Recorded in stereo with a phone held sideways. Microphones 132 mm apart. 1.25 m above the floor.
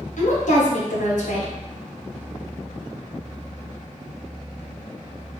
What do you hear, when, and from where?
0.2 s a woman speaking: 70° left (ahead or behind), 1.1 m